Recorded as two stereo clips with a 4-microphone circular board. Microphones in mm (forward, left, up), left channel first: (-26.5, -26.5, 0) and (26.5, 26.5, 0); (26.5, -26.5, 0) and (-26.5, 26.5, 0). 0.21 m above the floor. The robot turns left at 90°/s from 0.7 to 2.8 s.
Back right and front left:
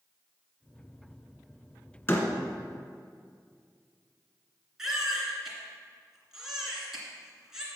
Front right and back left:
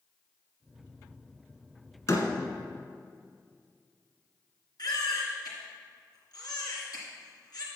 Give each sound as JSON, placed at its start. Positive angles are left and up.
{"t": 2.1, "sound": "a door slam", "azimuth_deg": -80, "distance_m": 1.4}
{"t": 4.8, "sound": "a baby crying", "azimuth_deg": -40, "distance_m": 2.5}